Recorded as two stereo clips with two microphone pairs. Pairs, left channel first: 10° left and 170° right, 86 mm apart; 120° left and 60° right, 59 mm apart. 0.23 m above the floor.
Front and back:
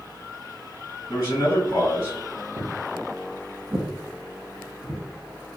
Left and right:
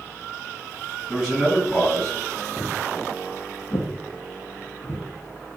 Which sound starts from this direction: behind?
Footsteps, at 2.6 s.